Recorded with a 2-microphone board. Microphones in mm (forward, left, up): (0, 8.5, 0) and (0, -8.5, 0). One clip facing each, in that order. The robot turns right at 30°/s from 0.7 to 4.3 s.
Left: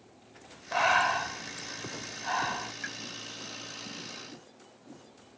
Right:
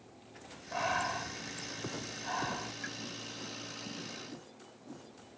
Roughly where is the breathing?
Left.